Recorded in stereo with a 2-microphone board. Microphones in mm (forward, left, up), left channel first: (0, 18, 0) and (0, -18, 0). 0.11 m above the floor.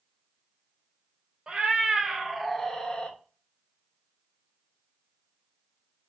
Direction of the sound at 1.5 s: 25° right (ahead or behind).